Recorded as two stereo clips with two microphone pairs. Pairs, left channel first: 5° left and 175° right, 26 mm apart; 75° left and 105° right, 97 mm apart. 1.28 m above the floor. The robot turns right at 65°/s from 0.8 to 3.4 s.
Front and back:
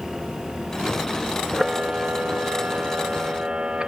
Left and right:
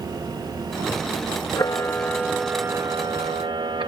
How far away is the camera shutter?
About 0.9 m.